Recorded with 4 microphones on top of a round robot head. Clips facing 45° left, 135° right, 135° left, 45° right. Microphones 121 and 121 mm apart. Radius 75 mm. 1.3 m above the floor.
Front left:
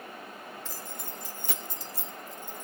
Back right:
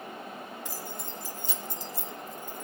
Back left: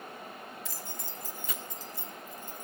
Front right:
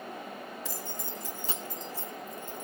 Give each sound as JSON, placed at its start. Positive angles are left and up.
{"t": 0.7, "sound": "keys jangling", "azimuth_deg": -55, "distance_m": 1.2}